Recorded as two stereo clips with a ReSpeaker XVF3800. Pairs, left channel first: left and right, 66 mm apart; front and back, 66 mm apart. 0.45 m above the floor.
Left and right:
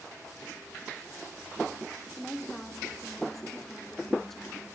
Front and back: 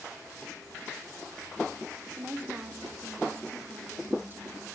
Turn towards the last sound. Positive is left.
turn(degrees=170)